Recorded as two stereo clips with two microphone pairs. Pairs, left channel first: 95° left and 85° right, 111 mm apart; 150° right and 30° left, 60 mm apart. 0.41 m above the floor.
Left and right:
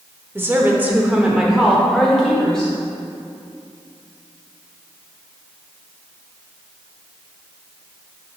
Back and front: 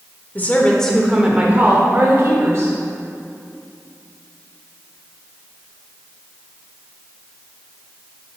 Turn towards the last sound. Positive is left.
turn(degrees=10)